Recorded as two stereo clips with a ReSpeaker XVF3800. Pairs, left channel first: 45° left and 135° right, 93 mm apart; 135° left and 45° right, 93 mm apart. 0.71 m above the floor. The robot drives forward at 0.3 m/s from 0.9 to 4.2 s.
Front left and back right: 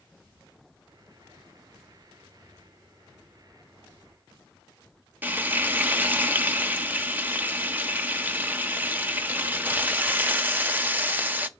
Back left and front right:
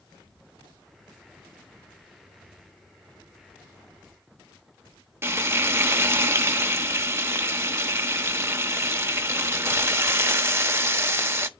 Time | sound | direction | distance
5.2 | frying | 85° right | 0.6 m